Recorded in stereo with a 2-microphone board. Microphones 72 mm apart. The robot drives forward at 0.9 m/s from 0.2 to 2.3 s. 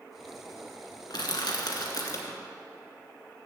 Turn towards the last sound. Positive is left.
turn(degrees=50)  # may be behind; listen again after turning